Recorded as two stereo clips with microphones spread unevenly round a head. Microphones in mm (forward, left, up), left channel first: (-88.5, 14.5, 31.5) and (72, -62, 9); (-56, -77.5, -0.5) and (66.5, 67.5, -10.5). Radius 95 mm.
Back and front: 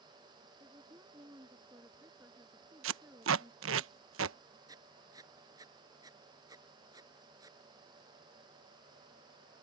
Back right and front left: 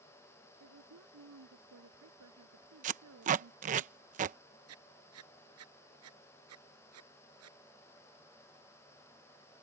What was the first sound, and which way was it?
A woman speaking, 50° left.